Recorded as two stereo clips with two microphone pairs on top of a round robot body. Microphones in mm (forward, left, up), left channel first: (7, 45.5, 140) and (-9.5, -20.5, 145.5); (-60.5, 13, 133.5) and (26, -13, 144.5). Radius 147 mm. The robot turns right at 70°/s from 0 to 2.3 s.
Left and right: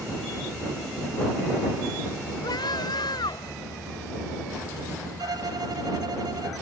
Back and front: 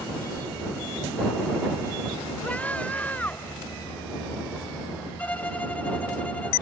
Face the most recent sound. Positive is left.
turn(degrees=-125)